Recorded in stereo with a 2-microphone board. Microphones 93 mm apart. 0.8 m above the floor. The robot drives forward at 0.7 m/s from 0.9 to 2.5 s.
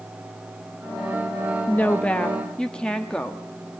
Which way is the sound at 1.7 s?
20° left (ahead or behind).